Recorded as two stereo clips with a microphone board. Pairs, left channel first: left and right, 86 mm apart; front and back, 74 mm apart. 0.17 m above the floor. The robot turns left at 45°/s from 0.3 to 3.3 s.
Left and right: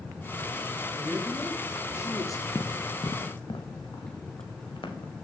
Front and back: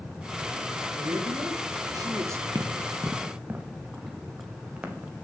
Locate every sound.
0.9 s a man speaking: 165° right, 2.5 m; by 2.5 s 130° left, 2.5 m
2.5 s running footsteps: 145° left, 1.1 m; by 5.1 s 110° left, 2.5 m